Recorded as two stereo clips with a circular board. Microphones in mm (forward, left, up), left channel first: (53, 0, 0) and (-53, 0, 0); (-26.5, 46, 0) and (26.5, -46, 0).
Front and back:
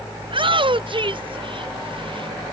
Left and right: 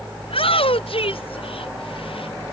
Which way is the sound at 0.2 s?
145° left.